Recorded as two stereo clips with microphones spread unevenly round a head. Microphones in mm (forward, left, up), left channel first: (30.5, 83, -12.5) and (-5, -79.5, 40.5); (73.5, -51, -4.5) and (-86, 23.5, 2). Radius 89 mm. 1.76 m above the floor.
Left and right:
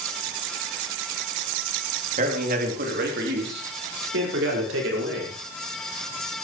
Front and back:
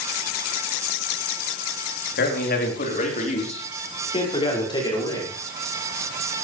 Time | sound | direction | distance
2.2 | a man speaking | 55° right | 4.5 m